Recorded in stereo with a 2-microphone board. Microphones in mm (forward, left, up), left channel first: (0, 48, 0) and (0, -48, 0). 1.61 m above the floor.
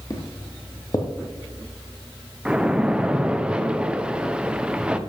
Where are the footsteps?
35° left (ahead or behind), 2 m.